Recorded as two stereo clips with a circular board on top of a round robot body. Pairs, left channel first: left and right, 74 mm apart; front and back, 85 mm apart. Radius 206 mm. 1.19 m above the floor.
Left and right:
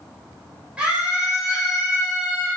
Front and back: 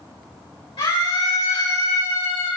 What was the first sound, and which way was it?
A scream, 15° right.